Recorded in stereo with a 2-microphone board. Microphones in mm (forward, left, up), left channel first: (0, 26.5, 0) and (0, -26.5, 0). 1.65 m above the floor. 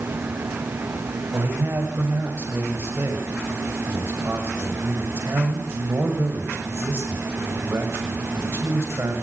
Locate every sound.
1.3 s a man speaking: 50° right (ahead or behind), 7 m